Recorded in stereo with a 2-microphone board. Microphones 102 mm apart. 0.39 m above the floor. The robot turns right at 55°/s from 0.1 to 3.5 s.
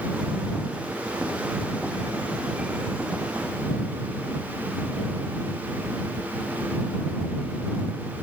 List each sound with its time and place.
Only background noise.